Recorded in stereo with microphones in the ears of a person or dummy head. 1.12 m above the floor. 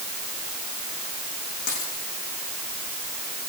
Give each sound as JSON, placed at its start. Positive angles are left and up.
{"t": 1.7, "sound": "a dropped coin", "side_deg": 50, "distance_m": 8.0}